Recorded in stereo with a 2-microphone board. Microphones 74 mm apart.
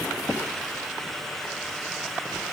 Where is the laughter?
I don't hear laughter.